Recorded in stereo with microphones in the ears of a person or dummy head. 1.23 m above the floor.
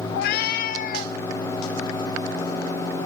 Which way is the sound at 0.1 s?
60° left (ahead or behind).